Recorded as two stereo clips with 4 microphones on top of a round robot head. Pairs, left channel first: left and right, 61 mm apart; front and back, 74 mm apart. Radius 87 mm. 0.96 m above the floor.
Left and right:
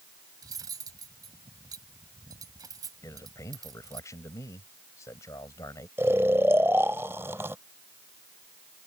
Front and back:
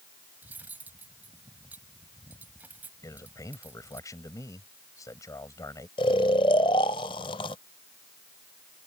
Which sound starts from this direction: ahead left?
A man speaking, at 3.0 s.